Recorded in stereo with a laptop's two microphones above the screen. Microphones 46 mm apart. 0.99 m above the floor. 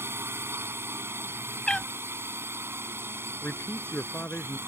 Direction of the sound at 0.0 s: 55° right (ahead or behind).